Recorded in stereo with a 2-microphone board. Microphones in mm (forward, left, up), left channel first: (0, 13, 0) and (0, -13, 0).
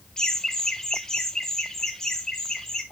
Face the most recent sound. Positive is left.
turn(degrees=15)  # may be behind; listen again after turning